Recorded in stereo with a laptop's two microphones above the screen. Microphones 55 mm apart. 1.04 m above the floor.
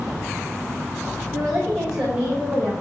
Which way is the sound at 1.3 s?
10° right (ahead or behind).